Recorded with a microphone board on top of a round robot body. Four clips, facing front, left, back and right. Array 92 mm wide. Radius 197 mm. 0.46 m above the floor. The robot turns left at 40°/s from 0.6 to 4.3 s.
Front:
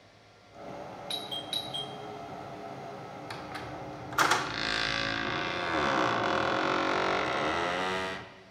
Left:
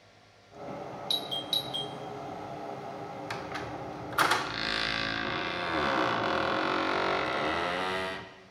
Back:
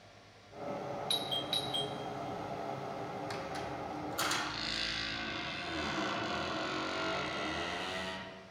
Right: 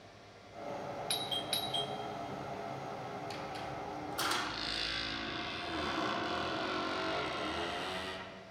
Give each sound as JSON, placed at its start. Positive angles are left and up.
{"t": 1.1, "sound": "a doorbell", "azimuth_deg": -80, "distance_m": 1.2}
{"t": 3.3, "sound": "a squeak", "azimuth_deg": 80, "distance_m": 0.7}